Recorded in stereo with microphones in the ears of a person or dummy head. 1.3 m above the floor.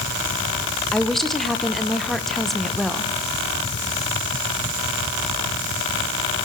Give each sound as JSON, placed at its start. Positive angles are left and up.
{"t": 0.9, "sound": "a woman speaking", "side_deg": 0, "distance_m": 1.0}